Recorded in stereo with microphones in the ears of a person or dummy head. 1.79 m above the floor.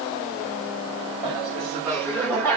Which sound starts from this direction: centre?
Laughter, at 1.2 s.